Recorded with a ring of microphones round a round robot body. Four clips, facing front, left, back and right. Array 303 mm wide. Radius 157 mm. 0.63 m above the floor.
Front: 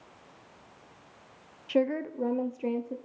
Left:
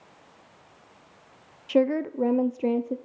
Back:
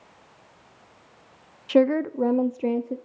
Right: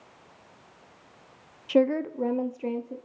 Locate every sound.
1.7 s a woman speaking: 175° right, 0.9 m; by 3.0 s 125° left, 1.2 m